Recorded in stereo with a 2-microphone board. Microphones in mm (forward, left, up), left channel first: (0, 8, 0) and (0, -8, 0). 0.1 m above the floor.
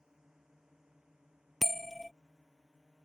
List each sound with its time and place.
0.0 s a drone: 40° right (ahead or behind); by 3.0 s 50° right (ahead or behind)
1.6 s a bell: 5° left (ahead or behind)